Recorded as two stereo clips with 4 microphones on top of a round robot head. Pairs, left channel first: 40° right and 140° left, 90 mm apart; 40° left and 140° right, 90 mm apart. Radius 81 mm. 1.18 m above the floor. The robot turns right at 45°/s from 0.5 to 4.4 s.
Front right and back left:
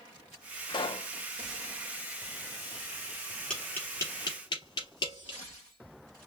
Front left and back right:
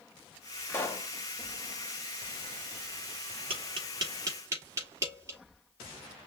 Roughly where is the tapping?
Behind right.